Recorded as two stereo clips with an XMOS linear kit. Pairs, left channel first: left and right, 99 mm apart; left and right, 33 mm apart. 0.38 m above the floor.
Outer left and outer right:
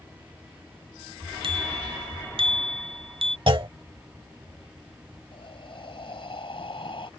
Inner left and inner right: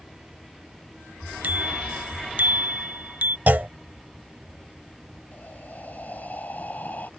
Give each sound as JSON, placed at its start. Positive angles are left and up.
{"t": 1.4, "sound": "a bicycle bell", "side_deg": -60}
{"t": 3.5, "sound": "a clunk", "side_deg": -60}
{"t": 5.3, "sound": "breathing", "side_deg": 60}